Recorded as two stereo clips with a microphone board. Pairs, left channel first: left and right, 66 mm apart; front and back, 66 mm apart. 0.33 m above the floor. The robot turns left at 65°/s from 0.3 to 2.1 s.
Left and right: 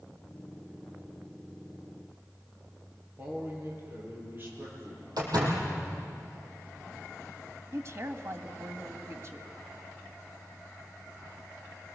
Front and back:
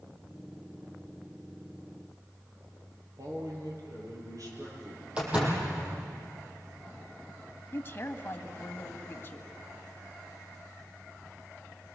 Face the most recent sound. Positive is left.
turn(degrees=-50)